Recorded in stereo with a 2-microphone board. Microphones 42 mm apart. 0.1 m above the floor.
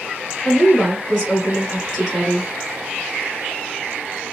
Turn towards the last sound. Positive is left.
turn(degrees=-20)  # may be behind; listen again after turning